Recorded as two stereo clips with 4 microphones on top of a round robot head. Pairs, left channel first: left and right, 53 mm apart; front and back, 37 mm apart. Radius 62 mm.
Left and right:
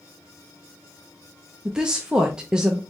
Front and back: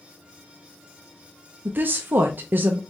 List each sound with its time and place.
1.6 s a woman speaking: 165° right, 0.6 m